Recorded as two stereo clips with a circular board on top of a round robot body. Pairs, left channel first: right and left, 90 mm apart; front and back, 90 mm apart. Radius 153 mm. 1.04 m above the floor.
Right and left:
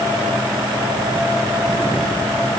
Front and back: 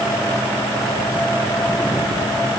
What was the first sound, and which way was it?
Only background noise.